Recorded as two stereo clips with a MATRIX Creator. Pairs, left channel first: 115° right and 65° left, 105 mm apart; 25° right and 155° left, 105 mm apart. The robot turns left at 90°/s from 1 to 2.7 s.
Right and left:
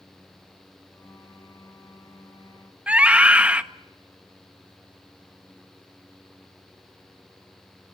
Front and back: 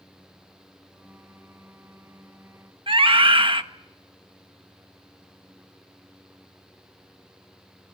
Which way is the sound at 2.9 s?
145° left.